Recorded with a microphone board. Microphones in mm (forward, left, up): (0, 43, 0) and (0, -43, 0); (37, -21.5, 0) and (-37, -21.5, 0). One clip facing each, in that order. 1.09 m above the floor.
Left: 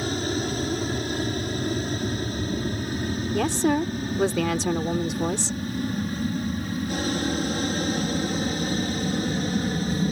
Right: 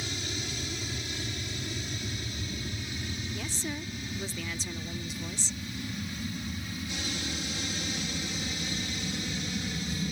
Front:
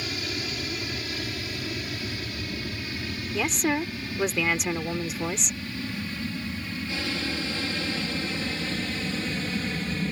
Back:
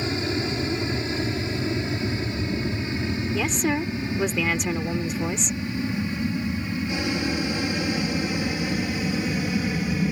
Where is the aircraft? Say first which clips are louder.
Left 12 dB, back 7 dB; 120° left; by 10.1 s 105° left.